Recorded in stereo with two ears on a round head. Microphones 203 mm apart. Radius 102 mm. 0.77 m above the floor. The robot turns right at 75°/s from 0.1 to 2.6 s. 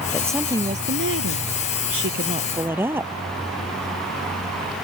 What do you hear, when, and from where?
0.1 s a woman speaking: 165° left; by 3.1 s 10° right